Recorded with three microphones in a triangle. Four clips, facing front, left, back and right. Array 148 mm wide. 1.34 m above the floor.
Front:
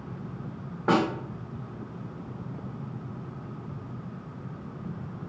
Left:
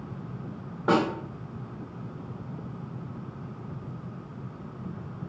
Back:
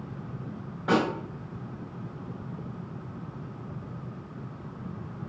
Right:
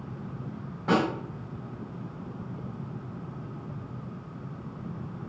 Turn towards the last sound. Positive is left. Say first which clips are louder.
# left 1 dB, front 1 dB
turn(degrees=45)